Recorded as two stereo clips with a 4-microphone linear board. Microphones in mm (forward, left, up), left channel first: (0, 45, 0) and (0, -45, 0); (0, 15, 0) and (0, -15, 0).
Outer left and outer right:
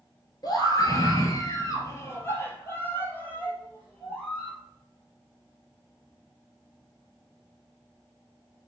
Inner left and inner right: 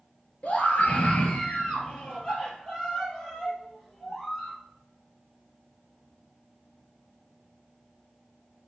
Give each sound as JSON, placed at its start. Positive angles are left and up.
{"t": 0.4, "sound": "a scream", "side_deg": 45, "distance_m": 2.0}